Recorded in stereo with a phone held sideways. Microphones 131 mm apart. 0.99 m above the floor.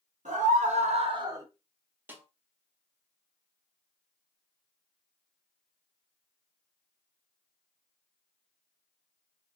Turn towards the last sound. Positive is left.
turn(degrees=-15)  # may be behind; listen again after turning